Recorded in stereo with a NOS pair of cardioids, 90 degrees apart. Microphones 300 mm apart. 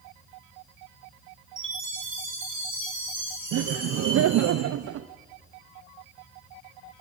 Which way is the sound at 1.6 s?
40° right.